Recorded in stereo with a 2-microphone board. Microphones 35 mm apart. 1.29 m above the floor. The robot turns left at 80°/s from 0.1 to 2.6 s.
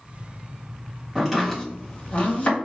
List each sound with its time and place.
1.1 s chopping: 15° right (ahead or behind), 1.4 m; by 2.5 s 45° left (ahead or behind), 1.4 m